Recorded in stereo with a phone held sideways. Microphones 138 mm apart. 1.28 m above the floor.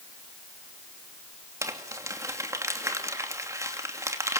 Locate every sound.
1.6 s crumpling: 25° right (ahead or behind), 2.5 m